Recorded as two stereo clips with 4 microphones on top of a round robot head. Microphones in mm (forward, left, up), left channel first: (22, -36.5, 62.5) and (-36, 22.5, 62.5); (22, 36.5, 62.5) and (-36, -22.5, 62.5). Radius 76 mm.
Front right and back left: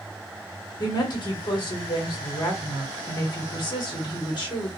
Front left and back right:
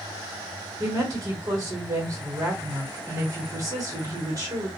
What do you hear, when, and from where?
0.8 s a woman speaking: 80° right, 1.2 m